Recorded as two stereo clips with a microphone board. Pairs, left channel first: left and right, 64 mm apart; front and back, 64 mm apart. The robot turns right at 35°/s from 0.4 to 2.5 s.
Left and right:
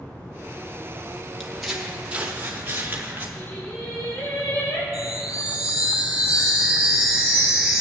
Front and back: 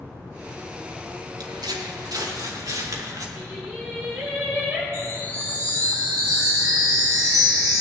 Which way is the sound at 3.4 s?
120° left.